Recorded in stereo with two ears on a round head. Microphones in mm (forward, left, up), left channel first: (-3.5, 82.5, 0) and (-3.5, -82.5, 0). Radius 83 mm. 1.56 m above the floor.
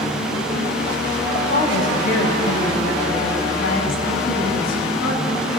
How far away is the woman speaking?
About 7 m.